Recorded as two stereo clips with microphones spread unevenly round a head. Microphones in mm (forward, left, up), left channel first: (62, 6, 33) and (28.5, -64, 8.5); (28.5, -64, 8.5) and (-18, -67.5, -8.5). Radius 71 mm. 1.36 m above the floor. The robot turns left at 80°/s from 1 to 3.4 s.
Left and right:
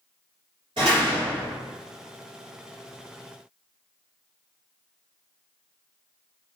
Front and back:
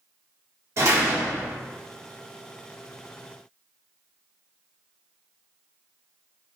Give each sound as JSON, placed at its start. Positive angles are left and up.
{"t": 0.8, "sound": "a door slam", "azimuth_deg": -165, "distance_m": 1.2}